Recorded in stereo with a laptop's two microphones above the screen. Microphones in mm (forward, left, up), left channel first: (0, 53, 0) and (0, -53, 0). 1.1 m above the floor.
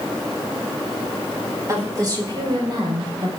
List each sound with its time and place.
1.7 s a woman speaking: 30° right (ahead or behind), 4 m; by 3.3 s 50° right (ahead or behind), 5.5 m